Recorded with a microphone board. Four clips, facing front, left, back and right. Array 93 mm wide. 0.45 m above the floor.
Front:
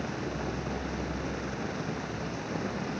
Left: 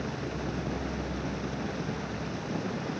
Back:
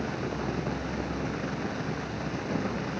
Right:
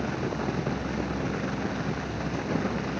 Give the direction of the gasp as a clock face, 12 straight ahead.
I don't hear a gasp.